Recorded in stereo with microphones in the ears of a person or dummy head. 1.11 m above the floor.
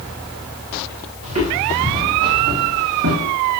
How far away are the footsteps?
About 6.5 m.